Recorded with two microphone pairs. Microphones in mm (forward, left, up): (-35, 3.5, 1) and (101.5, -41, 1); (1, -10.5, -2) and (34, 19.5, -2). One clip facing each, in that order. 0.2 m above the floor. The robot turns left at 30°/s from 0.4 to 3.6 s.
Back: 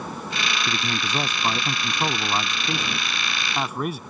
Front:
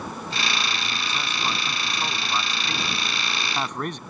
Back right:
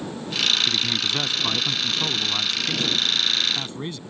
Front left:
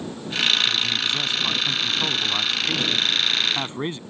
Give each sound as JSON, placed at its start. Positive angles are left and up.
{"t": 0.7, "sound": "a man speaking", "azimuth_deg": 170}